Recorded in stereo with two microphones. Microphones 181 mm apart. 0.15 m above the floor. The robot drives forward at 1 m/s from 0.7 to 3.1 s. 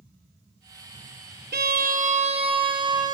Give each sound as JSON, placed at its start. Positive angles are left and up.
{"t": 1.5, "sound": "a violin", "side_deg": -70, "distance_m": 0.8}